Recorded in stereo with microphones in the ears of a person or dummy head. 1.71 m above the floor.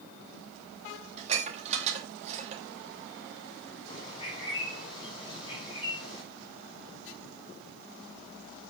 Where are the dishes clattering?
35° right (ahead or behind), 2 m.